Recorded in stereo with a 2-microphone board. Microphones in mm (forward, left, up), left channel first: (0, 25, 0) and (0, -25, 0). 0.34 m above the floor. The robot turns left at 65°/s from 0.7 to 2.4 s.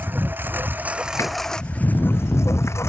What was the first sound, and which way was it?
A lawn mower, 140° right.